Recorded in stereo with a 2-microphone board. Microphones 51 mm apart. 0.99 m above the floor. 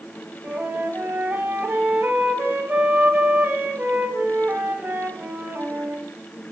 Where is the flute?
35° right (ahead or behind), 0.9 m.